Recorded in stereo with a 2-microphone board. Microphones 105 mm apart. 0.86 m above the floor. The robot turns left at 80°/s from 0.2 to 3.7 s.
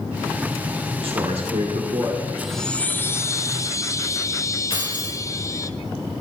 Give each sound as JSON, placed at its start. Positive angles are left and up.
{"t": 1.0, "sound": "a man speaking", "azimuth_deg": -55, "distance_m": 2.0}
{"t": 2.4, "sound": "a chime", "azimuth_deg": -175, "distance_m": 0.7}
{"t": 4.7, "sound": "keys jangling", "side_deg": 55, "distance_m": 3.0}